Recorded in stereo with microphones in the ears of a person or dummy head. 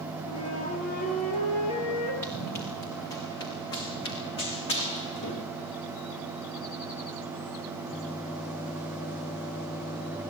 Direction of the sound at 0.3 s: 35° left (ahead or behind).